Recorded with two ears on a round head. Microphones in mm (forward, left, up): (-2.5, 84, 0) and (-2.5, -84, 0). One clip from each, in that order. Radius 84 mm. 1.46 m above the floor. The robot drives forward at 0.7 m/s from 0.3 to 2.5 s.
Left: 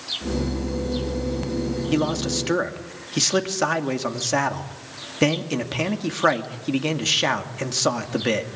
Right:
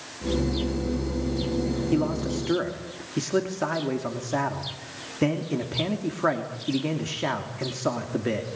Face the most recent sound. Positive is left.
turn(degrees=85)